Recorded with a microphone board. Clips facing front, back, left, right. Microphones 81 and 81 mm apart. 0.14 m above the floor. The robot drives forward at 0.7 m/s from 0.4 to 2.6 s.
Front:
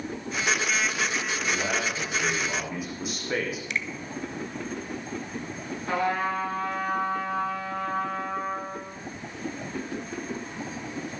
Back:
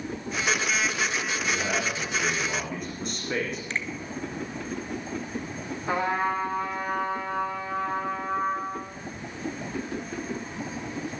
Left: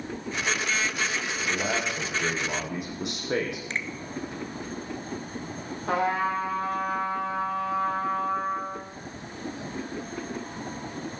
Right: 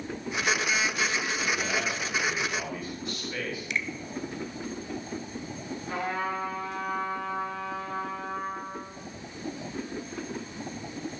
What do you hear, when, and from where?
1.5 s a man speaking: 80° left, 6.5 m; by 3.6 s 85° left, 6.5 m
3.7 s a finger snap: 135° left, 1.3 m
5.9 s a trumpet: 105° left, 8.5 m